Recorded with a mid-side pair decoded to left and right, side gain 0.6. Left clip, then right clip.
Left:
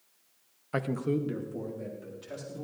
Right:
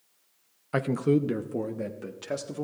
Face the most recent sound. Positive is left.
turn(degrees=-60)